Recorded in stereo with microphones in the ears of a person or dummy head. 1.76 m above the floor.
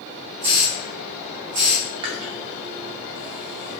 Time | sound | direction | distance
0.4 | a hiss | 25° right (ahead or behind) | 1.8 m
2.0 | chewing | 25° right (ahead or behind) | 0.5 m